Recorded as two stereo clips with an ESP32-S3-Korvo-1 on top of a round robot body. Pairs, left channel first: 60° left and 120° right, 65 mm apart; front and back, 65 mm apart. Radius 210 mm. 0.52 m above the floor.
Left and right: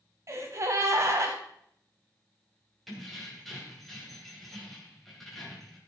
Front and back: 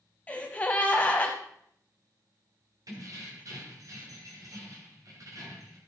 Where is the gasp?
70° right, 0.6 m.